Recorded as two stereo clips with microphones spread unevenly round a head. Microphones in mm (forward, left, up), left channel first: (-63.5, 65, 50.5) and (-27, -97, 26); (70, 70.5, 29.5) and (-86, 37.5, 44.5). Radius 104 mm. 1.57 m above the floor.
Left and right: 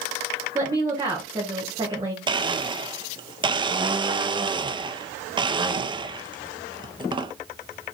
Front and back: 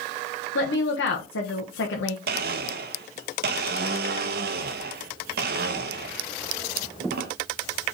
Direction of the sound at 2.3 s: 135° right.